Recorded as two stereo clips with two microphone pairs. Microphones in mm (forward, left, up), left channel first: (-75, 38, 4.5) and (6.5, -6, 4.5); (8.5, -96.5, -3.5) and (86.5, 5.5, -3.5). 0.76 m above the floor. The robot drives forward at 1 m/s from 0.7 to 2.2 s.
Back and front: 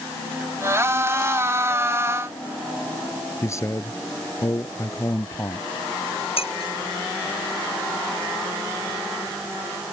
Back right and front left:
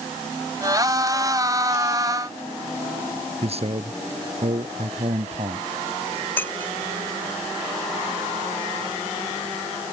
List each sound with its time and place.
3.4 s a man speaking: 95° left
6.4 s breaking glass: 155° left